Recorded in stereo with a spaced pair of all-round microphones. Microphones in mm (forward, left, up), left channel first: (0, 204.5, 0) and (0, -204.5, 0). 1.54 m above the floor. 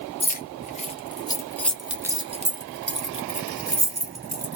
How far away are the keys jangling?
About 1.3 m.